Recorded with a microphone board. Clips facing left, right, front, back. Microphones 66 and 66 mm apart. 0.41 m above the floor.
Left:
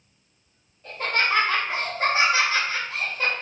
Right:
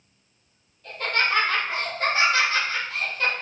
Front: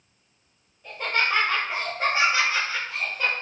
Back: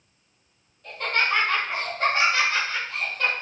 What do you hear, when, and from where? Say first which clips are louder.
0.8 s laughter: even, back 1 dB; 55° left, 1.1 m